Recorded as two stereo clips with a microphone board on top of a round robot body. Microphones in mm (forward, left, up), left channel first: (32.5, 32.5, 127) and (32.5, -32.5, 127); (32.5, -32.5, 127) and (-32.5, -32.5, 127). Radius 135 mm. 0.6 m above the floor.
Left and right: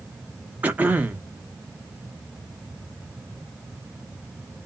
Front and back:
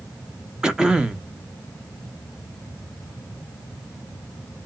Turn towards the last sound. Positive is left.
turn(degrees=-115)